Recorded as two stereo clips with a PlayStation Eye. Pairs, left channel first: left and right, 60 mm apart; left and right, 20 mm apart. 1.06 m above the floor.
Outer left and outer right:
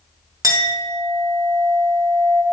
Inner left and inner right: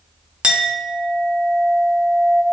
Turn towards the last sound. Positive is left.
turn(degrees=-60)  # may be behind; listen again after turning